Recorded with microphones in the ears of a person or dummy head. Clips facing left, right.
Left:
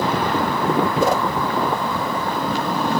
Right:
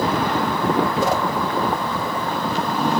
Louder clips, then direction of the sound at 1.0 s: Left 2 dB; 75° left (ahead or behind).